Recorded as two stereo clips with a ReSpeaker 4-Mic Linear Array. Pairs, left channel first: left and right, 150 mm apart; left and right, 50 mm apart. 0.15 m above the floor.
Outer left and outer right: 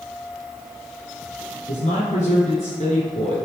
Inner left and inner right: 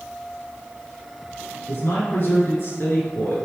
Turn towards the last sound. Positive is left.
turn(degrees=50)  # may be behind; listen again after turning